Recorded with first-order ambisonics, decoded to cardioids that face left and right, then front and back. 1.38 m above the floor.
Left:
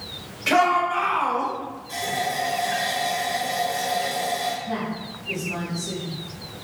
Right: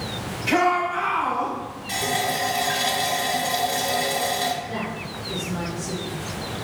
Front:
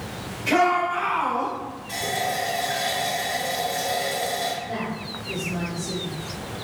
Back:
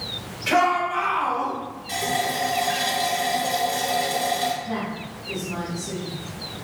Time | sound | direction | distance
0.5 | a shout | 105° left | 1.8 m
1.9 | a running tap | 115° right | 1.3 m
4.6 | a woman speaking | 125° left | 1.4 m